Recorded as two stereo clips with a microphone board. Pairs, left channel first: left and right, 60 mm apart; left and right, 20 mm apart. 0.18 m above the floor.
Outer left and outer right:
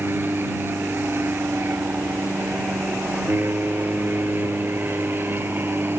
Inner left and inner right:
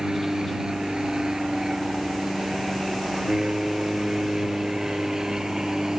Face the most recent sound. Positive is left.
turn(degrees=-40)  # may be behind; listen again after turning